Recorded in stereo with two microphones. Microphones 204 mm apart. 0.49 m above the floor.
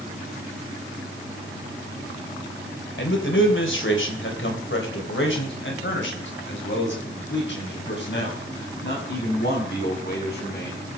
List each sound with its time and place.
3.0 s a man speaking: 60° left (ahead or behind), 2.5 m; by 10.8 s 50° left (ahead or behind), 5.5 m